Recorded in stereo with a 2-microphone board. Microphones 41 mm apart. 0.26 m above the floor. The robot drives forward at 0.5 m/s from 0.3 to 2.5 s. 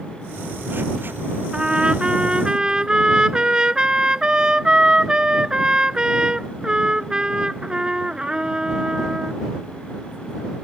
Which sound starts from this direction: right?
A trumpet, at 1.5 s.